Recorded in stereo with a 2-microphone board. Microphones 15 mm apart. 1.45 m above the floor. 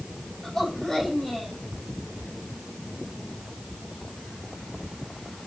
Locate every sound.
0.4 s a woman speaking: 30° left (ahead or behind), 8.5 m